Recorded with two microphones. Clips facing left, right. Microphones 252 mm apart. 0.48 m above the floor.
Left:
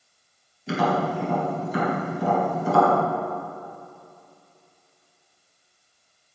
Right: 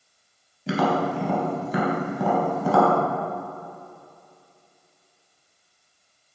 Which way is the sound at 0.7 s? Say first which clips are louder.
Right 1 dB; 70° right (ahead or behind).